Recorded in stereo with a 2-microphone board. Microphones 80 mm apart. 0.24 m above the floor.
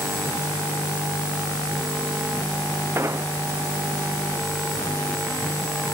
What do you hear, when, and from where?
3.0 s an explosion: 35° right (ahead or behind)